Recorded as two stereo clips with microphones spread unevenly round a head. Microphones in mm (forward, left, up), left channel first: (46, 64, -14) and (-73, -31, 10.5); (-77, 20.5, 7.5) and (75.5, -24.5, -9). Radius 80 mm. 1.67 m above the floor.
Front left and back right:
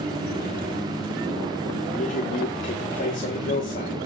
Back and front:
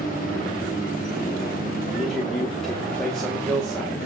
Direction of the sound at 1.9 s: 75° left.